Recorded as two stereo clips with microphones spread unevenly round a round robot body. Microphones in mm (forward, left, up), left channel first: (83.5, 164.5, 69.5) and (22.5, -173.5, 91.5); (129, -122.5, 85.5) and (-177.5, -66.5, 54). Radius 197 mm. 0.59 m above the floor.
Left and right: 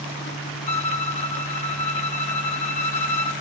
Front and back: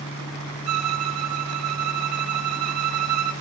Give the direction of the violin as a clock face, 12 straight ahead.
7 o'clock.